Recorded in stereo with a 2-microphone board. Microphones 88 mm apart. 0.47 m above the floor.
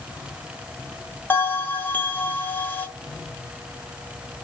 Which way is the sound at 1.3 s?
20° left (ahead or behind).